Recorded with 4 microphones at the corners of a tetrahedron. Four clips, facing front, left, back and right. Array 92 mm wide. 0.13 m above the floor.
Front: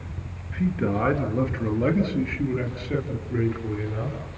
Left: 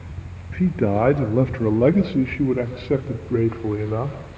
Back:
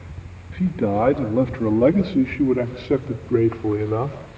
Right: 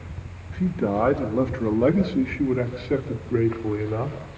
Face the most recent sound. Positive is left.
turn(degrees=150)